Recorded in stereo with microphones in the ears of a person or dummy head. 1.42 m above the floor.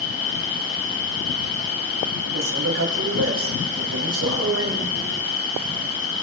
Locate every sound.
0.0 s an insect: 50° left (ahead or behind), 7 m
2.3 s a man speaking: 75° right (ahead or behind), 3.5 m